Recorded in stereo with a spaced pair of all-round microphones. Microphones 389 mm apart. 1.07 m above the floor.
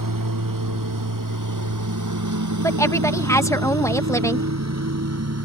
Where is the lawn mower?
55° right (ahead or behind); by 5.5 s 40° right (ahead or behind).